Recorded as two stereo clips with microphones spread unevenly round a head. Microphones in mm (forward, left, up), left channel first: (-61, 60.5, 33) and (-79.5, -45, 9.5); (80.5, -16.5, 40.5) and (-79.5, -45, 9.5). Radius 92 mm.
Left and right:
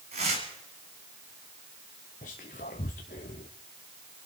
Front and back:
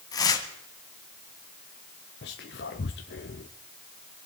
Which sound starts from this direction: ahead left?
Whispering, at 2.2 s.